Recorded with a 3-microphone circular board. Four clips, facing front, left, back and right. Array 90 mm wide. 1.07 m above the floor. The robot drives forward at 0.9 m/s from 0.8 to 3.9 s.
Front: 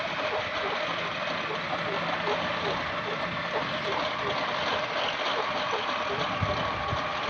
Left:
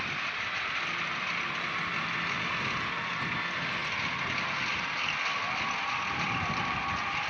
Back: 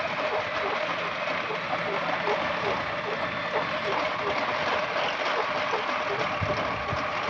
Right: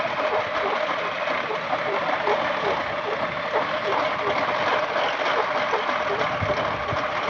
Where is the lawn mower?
100° right; by 7.3 s 95° right.